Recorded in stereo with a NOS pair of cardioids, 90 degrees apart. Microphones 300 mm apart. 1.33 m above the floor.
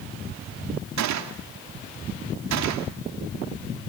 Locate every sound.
1.0 s a gunshot: 65° right, 2 m